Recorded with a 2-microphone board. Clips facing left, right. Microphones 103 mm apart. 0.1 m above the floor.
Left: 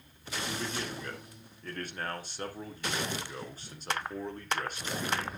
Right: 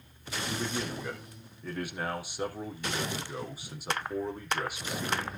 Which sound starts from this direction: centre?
A man speaking, at 0.5 s.